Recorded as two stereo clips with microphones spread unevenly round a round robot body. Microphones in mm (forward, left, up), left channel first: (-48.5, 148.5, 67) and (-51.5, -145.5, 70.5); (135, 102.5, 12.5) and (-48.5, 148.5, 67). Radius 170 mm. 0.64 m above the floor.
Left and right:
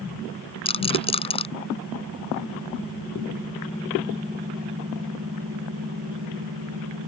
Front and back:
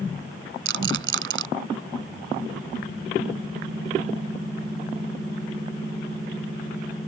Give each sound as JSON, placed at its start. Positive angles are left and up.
{"t": 0.7, "sound": "a rattle", "azimuth_deg": 160}